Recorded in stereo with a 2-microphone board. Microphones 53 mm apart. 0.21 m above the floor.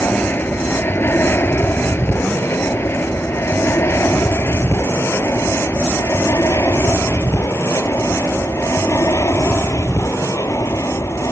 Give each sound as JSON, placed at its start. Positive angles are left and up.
{"t": 0.0, "sound": "an aircraft", "side_deg": 45}